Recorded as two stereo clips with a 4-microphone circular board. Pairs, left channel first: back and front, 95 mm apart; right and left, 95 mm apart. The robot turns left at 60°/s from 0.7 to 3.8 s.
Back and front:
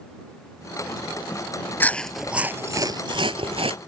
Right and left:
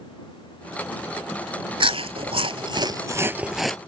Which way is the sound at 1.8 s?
110° left.